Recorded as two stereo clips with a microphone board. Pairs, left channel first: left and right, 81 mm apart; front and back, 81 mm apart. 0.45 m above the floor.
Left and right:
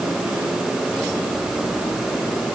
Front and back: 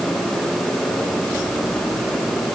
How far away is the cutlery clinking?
I don't hear cutlery clinking.